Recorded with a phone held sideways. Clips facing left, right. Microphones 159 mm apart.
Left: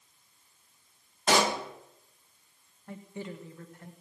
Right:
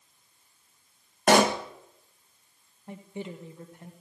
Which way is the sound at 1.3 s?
55° right (ahead or behind).